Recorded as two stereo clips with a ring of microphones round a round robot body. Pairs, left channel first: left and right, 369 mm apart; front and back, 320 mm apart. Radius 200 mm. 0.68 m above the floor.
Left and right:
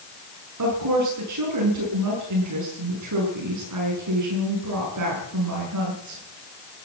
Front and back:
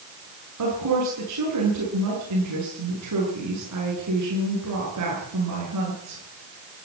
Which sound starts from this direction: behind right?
A woman speaking, at 0.6 s.